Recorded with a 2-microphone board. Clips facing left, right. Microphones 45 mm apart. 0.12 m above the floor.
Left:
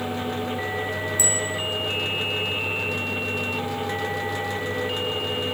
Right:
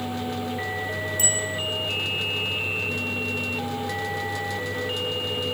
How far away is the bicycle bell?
About 3.5 m.